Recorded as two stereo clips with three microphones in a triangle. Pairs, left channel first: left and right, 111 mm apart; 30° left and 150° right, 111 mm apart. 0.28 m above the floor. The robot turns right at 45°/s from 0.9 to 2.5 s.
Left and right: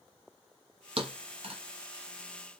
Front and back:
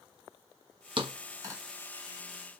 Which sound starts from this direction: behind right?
A thud, at 1.0 s.